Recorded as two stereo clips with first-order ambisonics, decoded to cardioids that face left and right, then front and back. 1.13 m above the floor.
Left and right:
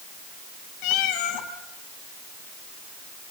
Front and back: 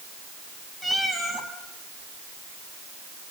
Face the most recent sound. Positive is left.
turn(degrees=85)